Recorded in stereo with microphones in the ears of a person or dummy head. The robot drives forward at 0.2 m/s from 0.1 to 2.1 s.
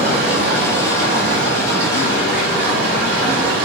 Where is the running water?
60° right (ahead or behind), 2.5 m.